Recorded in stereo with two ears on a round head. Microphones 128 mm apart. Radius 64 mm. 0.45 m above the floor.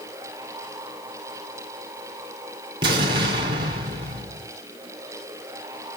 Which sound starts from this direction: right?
An explosion, at 2.8 s.